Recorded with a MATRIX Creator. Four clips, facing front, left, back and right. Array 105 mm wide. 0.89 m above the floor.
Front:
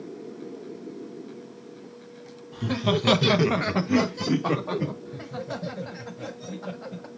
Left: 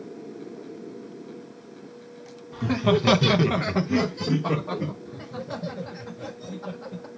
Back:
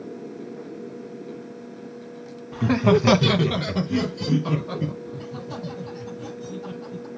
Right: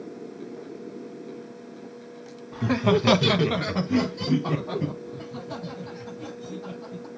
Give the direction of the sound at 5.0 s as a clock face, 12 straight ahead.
11 o'clock.